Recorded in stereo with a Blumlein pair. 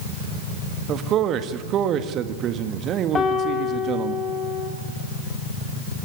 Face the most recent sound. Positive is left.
turn(degrees=20)